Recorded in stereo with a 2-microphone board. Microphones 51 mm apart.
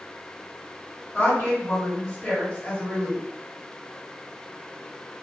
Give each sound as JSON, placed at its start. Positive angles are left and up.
{"t": 1.1, "sound": "a woman speaking", "side_deg": 35, "distance_m": 2.0}